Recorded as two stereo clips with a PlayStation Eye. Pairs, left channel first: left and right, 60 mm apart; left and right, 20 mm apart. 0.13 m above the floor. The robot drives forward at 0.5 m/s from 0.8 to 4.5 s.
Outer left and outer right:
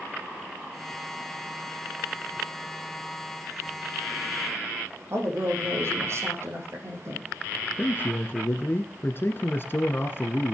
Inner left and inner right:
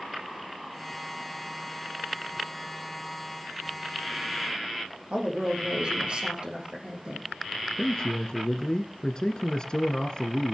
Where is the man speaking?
40° left (ahead or behind), 1.4 m.